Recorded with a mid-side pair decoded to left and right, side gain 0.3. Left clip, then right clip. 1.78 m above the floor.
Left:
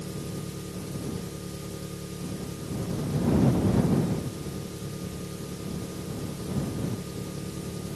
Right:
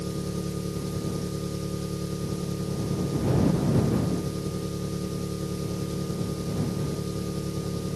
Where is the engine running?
65° right.